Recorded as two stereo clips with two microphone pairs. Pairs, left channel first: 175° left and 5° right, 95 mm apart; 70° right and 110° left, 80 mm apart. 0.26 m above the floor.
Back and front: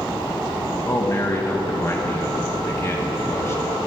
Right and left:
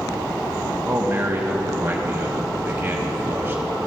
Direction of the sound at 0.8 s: 145° left.